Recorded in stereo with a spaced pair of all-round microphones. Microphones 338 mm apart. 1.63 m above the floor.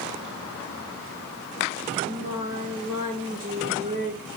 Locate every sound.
2.0 s singing: 25° right (ahead or behind), 9 m